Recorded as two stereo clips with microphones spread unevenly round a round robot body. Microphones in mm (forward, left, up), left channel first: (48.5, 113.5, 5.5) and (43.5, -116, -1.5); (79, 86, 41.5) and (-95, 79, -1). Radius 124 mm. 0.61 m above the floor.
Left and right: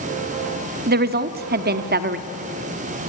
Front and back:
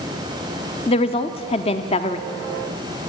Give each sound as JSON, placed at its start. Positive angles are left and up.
{"t": 0.9, "sound": "a woman speaking", "azimuth_deg": -65, "distance_m": 0.9}